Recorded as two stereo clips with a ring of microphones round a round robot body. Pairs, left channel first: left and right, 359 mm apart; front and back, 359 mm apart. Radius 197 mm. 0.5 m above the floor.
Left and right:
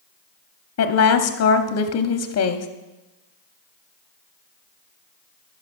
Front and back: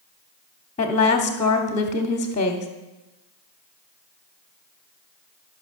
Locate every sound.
0.8 s a woman speaking: 65° left, 0.8 m